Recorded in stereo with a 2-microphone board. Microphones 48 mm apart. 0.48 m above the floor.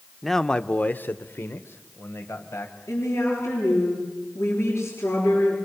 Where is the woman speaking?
80° left, 8.5 m.